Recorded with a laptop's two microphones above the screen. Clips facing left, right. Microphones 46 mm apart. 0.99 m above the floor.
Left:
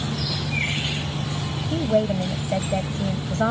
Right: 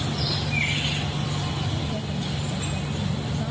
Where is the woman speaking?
70° left (ahead or behind); by 3.5 s 60° left (ahead or behind).